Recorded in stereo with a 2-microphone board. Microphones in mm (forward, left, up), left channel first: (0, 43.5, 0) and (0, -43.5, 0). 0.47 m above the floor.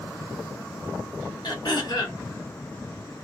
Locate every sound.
1.4 s throat clearing: 55° left (ahead or behind), 1.4 m